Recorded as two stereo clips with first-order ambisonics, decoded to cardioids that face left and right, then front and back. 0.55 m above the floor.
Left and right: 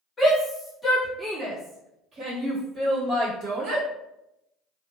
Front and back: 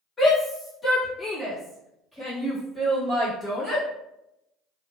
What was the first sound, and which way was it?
A shout, 55° left.